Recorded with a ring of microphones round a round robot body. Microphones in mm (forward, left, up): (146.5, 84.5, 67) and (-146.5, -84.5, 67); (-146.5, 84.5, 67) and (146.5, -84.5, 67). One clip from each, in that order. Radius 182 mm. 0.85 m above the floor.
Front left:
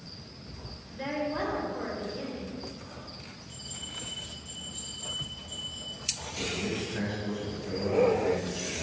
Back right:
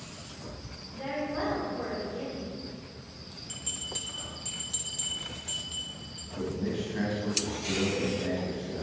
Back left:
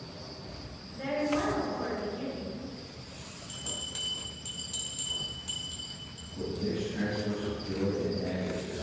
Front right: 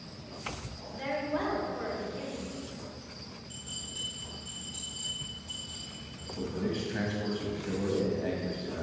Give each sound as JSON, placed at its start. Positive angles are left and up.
{"t": 0.9, "sound": "a woman speaking", "azimuth_deg": 25, "distance_m": 3.0}
{"t": 3.5, "sound": "a bell", "azimuth_deg": 175, "distance_m": 1.8}
{"t": 6.4, "sound": "a man speaking", "azimuth_deg": -50, "distance_m": 1.5}